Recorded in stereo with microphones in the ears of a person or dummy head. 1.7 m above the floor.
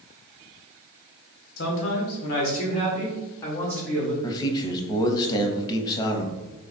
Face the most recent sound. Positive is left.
turn(degrees=25)  # may be behind; listen again after turning